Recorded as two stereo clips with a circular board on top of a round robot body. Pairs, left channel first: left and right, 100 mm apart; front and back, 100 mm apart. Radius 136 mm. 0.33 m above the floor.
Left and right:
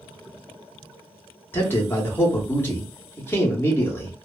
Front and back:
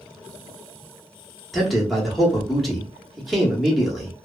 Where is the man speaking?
90° left, 1.0 m.